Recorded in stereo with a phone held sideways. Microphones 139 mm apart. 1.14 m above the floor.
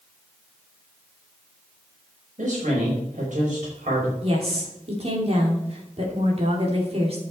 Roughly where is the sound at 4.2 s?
Right.